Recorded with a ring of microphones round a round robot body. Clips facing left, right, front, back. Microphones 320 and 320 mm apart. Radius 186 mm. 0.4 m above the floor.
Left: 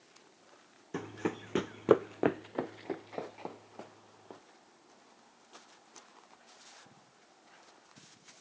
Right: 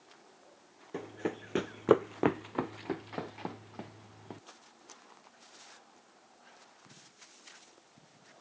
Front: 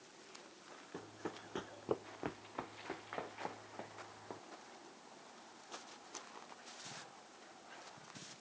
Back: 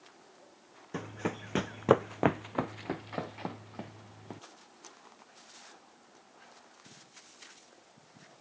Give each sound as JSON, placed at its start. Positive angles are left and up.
{"t": 0.9, "sound": "running footsteps", "azimuth_deg": 155}